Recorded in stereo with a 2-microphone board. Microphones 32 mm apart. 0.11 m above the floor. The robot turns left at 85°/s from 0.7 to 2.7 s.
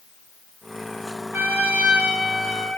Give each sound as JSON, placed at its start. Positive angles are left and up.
{"t": 1.3, "sound": "a trumpet", "azimuth_deg": -85, "distance_m": 2.5}